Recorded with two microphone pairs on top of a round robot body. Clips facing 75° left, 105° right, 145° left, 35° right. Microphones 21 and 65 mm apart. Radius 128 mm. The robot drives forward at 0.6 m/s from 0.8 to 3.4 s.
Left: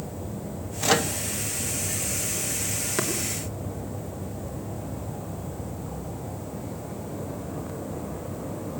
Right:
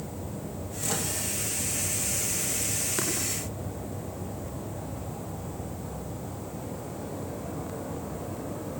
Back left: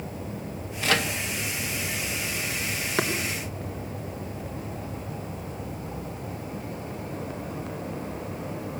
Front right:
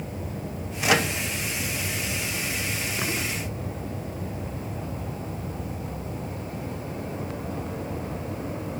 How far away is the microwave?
About 1.4 m.